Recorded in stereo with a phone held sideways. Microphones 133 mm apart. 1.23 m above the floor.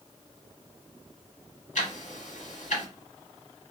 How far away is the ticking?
About 1.6 m.